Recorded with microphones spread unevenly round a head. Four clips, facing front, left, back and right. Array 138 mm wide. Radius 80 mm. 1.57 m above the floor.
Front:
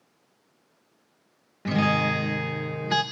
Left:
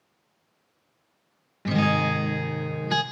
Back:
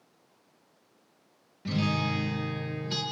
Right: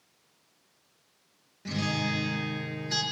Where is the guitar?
35° left, 1.4 m.